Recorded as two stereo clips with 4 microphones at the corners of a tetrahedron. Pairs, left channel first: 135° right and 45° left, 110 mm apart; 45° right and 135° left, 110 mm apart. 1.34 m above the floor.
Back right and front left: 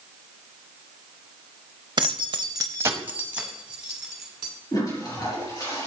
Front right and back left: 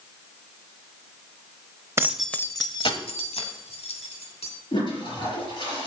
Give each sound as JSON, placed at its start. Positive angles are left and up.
{"t": 2.0, "sound": "keys jangling", "azimuth_deg": 75, "distance_m": 0.8}
{"t": 4.7, "sound": "a toilet flushing", "azimuth_deg": -85, "distance_m": 4.0}